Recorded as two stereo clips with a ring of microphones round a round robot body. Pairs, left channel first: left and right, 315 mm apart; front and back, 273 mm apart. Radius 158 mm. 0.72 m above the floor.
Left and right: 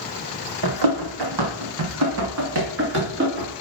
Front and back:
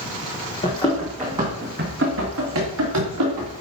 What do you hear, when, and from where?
0.6 s running footsteps: 75° right, 1.8 m; by 3.6 s 150° right, 4 m